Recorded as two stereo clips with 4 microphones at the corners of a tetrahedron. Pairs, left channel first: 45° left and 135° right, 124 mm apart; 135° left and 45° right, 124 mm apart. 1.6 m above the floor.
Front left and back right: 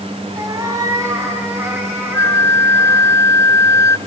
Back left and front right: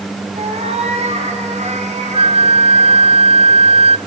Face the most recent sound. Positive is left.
turn(degrees=-15)